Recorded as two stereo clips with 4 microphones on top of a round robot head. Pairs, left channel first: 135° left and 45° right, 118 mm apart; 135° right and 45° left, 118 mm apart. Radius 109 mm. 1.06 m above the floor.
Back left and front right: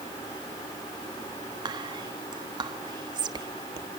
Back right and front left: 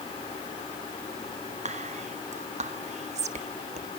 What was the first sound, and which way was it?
Whispering, 10° left.